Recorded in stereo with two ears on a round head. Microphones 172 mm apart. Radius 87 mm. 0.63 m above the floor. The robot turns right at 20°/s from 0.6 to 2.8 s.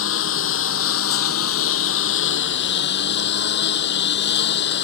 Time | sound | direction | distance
0.0 | a lawn mower | 70° left | ?